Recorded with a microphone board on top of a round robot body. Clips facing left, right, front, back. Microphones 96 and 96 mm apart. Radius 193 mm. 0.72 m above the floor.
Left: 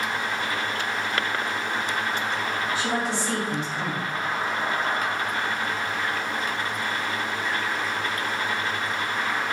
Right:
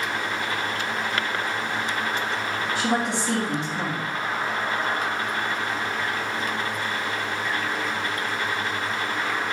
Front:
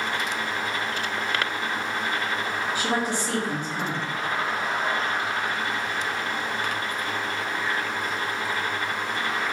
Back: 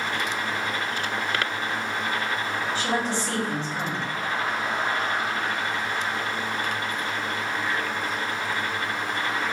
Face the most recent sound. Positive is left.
turn(degrees=-75)